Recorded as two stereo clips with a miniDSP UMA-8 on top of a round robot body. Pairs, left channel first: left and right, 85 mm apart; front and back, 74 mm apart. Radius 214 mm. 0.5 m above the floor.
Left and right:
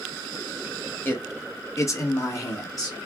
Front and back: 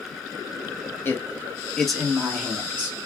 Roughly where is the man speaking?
Ahead left.